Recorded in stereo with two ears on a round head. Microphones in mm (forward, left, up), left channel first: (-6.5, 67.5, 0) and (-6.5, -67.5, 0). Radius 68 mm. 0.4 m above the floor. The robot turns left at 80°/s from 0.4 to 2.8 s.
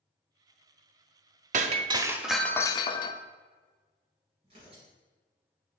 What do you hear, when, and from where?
1.5 s breaking glass: 115° right, 0.7 m; by 3.2 s 145° left, 0.7 m
4.4 s tearing paper: 40° right (ahead or behind), 3.5 m